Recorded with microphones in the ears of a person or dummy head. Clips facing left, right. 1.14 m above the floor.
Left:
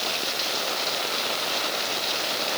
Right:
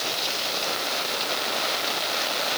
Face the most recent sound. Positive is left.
No sound to turn to.